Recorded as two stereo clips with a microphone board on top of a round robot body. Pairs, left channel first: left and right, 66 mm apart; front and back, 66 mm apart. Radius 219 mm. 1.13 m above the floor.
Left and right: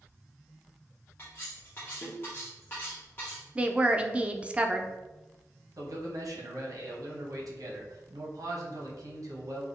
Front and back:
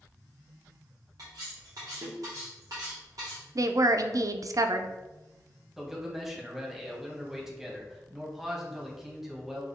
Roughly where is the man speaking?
Right.